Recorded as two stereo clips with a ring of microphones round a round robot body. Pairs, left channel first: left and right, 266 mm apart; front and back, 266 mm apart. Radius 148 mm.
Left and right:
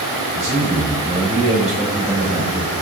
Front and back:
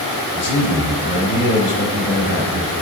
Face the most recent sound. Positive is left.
turn(degrees=-30)